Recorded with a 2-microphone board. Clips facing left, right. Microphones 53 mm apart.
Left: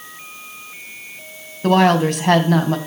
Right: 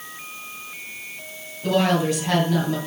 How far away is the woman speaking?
About 2.5 m.